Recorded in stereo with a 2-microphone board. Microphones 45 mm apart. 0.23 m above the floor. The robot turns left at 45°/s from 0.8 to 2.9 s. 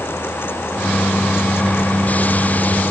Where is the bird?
I don't hear a bird.